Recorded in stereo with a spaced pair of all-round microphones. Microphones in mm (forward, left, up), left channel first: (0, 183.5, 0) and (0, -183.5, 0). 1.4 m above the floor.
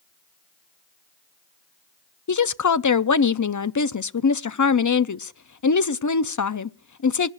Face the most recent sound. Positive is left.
turn(degrees=55)  # may be behind; listen again after turning